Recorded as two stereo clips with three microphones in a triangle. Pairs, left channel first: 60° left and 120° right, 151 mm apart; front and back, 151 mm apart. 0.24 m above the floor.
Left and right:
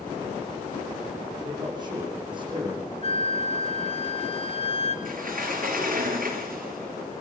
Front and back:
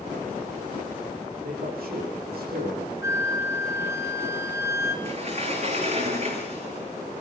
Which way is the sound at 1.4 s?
Straight behind.